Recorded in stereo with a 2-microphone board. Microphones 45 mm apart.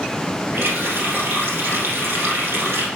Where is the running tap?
60° right (ahead or behind), 2.5 m.